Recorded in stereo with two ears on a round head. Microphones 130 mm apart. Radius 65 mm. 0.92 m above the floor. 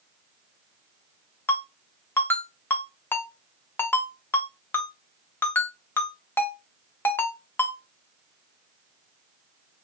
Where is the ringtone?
15° left (ahead or behind), 0.6 m.